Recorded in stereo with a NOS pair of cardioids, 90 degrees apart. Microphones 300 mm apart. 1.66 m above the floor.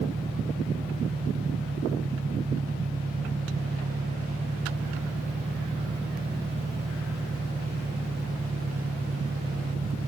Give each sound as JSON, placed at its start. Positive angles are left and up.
{"t": 0.0, "sound": "an engine running", "azimuth_deg": -20}